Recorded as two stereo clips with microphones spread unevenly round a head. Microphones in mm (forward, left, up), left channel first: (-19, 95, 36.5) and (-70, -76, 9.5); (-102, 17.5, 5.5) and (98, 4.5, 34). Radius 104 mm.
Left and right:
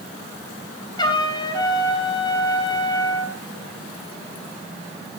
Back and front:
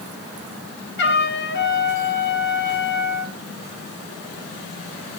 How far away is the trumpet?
About 6 m.